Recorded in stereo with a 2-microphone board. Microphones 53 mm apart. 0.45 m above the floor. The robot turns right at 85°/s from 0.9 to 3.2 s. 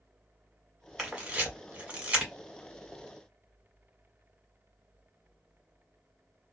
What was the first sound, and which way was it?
A camera shutter, 5° right (ahead or behind).